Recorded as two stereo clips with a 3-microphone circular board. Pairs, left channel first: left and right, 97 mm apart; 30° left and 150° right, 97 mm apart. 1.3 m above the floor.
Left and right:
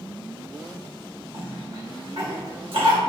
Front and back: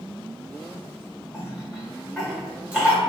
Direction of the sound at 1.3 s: 70° right.